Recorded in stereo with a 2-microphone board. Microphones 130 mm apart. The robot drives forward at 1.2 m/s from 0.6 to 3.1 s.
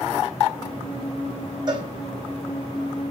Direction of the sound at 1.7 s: 30° right (ahead or behind).